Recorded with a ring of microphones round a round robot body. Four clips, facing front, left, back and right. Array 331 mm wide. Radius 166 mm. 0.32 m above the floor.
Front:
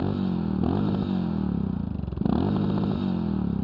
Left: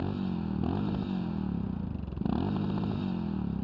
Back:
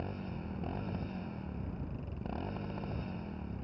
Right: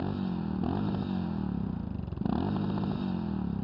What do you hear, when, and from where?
0.0 s a motorcycle: straight ahead